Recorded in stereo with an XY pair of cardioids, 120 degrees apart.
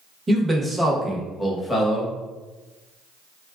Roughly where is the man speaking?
Ahead.